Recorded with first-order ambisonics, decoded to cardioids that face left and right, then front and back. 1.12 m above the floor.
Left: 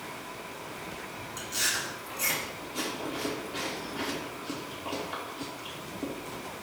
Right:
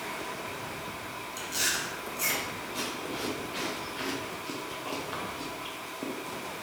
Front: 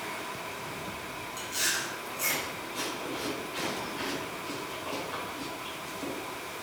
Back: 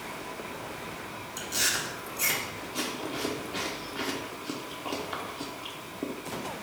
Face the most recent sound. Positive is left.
turn(degrees=-170)